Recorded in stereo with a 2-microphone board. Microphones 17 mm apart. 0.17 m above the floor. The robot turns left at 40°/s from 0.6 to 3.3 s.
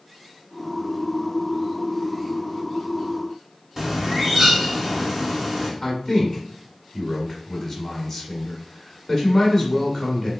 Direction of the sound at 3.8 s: 20° right (ahead or behind).